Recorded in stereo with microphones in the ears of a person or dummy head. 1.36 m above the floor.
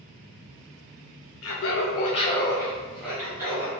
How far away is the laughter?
About 0.6 m.